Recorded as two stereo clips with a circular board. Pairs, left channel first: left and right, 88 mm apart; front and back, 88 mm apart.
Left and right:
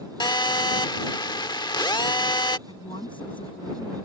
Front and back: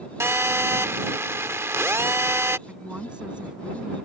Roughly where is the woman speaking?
Left.